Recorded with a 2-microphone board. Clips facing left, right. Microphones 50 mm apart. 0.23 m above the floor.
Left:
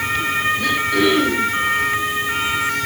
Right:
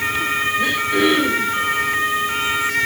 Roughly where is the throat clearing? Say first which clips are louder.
Even; right.